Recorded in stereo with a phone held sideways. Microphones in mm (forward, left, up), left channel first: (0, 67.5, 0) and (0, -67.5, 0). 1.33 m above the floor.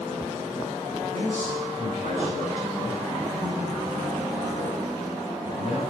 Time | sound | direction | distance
1.1 | a man speaking | 65° right (ahead or behind) | 10 m